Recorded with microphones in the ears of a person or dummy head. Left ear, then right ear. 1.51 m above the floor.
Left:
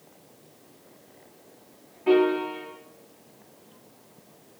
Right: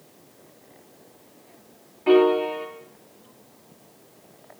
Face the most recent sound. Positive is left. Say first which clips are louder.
# right 4 dB
turn(degrees=-25)  # may be behind; listen again after turning